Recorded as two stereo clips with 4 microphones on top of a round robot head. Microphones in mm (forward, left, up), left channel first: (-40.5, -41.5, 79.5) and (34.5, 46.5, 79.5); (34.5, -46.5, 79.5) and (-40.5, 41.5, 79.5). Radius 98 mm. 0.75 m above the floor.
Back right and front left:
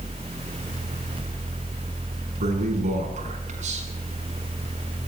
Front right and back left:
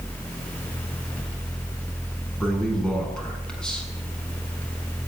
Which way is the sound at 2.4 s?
35° left.